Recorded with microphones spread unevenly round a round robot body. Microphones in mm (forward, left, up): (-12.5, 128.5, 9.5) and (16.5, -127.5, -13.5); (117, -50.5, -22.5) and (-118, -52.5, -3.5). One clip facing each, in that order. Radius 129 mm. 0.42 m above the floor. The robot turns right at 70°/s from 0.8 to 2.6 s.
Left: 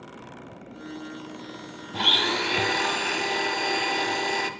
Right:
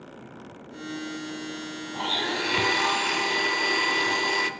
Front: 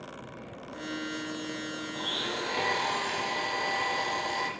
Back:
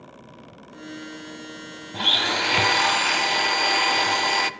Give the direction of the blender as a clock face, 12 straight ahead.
7 o'clock.